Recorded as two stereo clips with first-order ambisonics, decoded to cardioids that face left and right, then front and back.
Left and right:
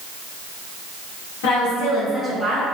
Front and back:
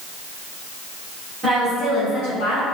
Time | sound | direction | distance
1.4 | a woman speaking | 95° left | 1.1 m